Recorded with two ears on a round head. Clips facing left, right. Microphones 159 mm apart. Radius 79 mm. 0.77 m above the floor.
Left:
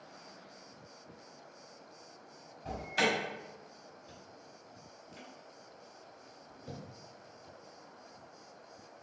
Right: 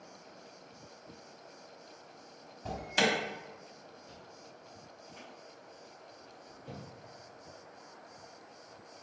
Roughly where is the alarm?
Right.